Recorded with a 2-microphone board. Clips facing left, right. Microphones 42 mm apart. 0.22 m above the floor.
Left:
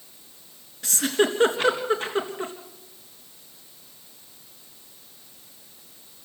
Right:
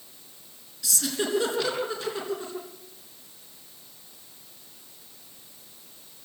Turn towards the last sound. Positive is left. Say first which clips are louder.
# left 7 dB
turn(degrees=45)  # may be behind; listen again after turning